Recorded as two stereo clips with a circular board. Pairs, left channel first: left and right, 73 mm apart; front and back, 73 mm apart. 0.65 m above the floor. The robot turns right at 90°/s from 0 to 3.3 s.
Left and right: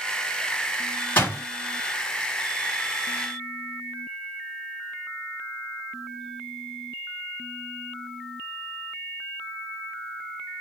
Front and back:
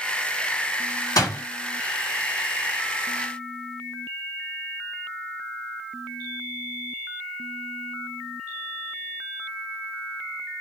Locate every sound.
1.2 s a door slam: 25° left, 1.5 m; by 1.4 s 45° left, 1.5 m